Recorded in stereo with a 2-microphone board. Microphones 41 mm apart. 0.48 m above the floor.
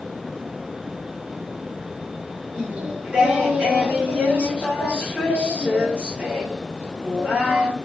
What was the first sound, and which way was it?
Singing, 30° right (ahead or behind).